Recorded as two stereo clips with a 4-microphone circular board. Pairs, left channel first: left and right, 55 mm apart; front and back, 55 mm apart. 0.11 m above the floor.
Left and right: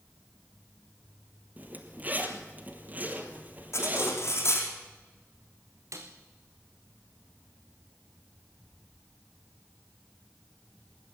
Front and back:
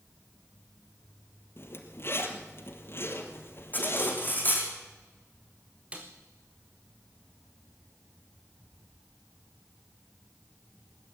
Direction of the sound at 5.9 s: 110° right.